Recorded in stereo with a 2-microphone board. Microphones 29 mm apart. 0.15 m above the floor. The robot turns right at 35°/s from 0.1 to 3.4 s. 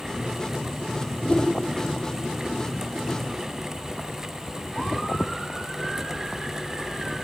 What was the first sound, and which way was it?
A whoosh, 30° left (ahead or behind).